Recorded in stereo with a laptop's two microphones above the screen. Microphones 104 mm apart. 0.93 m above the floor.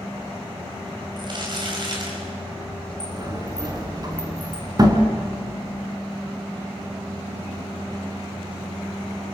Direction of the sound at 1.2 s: 45° right (ahead or behind).